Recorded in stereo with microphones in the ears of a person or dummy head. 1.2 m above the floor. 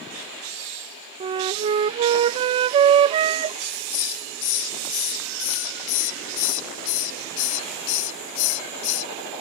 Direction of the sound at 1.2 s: 30° right (ahead or behind).